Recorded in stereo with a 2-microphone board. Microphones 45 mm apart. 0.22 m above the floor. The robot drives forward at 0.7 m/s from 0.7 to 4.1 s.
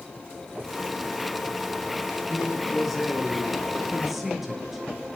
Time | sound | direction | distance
2.3 | a man speaking | 5° right (ahead or behind) | 4 m